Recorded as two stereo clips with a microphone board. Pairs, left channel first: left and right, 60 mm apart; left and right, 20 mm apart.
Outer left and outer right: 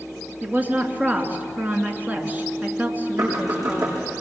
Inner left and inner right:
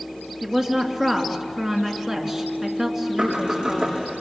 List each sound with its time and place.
0.4 s a woman speaking: 30° right (ahead or behind), 2.5 m
3.2 s knocking: 80° right, 8.5 m